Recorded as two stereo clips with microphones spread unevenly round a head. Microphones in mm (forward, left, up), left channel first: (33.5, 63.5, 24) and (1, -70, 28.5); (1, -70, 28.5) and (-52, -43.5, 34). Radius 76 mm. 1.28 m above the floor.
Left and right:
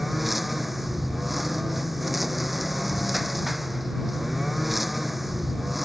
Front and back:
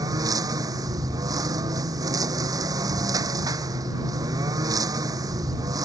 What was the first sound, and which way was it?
A lawn mower, 170° left.